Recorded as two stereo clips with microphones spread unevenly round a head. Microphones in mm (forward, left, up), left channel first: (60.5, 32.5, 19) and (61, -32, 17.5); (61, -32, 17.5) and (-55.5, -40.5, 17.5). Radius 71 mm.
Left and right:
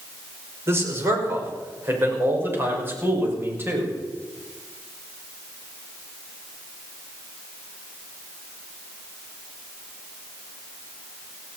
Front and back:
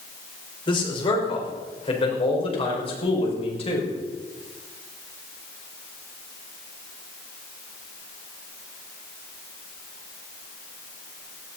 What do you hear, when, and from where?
0.7 s a man speaking: 40° right, 5.5 m; by 3.9 s 30° right, 7 m